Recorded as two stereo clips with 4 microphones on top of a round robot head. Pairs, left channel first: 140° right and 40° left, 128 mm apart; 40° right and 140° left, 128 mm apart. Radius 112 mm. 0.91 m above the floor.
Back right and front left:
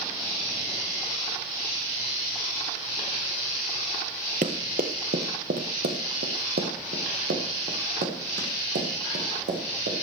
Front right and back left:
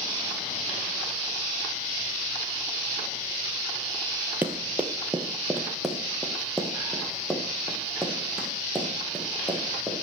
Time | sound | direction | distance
4.4 | running footsteps | 65° left | 1.1 m